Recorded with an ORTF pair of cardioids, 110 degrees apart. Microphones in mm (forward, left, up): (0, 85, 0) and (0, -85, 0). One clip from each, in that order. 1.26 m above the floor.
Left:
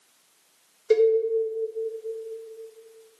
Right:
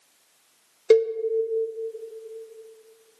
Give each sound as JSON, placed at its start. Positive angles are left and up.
{"t": 0.9, "sound": "a cowbell", "azimuth_deg": -40, "distance_m": 0.7}